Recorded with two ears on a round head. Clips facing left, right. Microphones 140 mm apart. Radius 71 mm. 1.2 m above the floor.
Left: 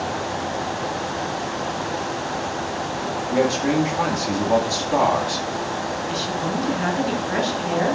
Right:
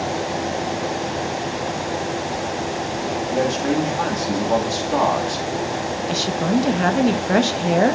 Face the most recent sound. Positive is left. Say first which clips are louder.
# right 8 dB
turn(degrees=-55)  # may be behind; listen again after turning